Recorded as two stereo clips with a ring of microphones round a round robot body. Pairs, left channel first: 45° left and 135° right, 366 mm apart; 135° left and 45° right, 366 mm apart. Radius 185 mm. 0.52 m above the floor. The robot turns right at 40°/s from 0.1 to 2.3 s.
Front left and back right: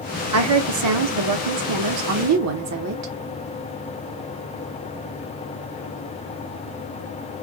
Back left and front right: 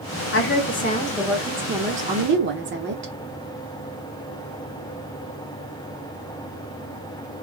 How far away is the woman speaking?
About 1.0 m.